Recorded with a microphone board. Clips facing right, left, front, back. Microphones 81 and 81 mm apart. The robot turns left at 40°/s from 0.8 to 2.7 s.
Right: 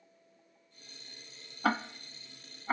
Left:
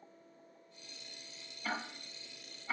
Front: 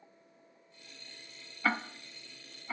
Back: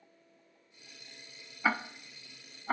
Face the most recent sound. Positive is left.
turn(degrees=-140)